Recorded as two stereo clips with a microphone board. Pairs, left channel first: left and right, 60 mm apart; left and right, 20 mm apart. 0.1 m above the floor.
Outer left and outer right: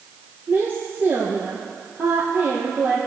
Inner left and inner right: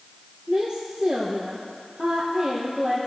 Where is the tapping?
I don't hear tapping.